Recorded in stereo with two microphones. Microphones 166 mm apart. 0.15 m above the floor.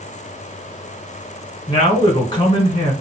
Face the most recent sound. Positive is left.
turn(degrees=30)  # may be behind; listen again after turning